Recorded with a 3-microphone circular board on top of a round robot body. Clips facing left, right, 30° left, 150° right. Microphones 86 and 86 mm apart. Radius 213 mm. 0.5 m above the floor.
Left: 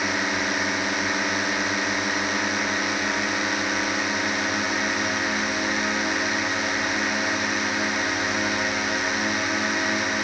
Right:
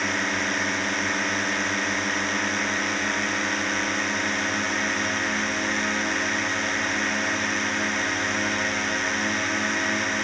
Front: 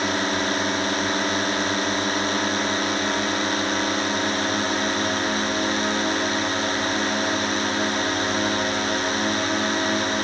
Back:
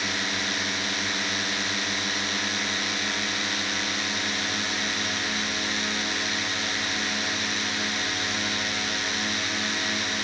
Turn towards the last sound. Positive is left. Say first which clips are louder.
# left 1 dB, front 7 dB
turn(degrees=10)